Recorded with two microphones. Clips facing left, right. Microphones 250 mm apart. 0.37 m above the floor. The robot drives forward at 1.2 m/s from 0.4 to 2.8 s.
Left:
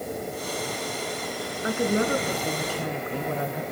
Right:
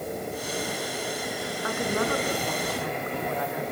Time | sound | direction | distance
1.6 | a woman speaking | 20° left (ahead or behind) | 3.5 m